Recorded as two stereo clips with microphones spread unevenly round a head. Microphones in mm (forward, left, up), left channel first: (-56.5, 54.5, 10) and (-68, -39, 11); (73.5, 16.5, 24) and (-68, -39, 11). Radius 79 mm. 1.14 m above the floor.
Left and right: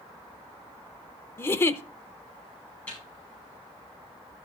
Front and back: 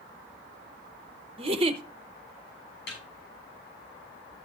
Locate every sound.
1.4 s a giggle: 145° left, 0.9 m
2.9 s a snare drum: straight ahead, 6.5 m